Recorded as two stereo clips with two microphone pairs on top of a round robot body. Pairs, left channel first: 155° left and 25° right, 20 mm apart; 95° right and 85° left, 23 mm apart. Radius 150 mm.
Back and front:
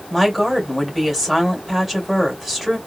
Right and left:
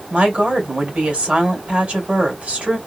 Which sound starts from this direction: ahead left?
A woman speaking, at 0.1 s.